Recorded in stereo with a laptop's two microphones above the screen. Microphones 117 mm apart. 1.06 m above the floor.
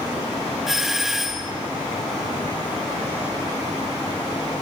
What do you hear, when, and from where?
0.7 s a doorbell: 5° right (ahead or behind), 1.6 m